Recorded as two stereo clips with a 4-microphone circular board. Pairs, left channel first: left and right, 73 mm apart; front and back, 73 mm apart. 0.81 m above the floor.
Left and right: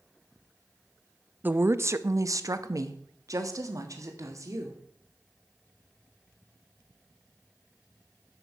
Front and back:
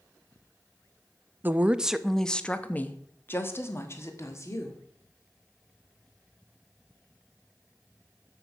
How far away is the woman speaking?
About 0.6 m.